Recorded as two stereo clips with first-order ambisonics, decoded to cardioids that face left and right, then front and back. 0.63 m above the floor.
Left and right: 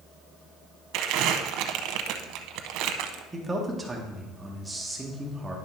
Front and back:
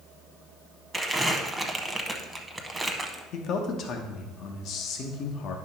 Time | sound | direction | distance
0.9 | crumpling | 95° right | 0.7 m
3.3 | a man speaking | 10° right | 1.1 m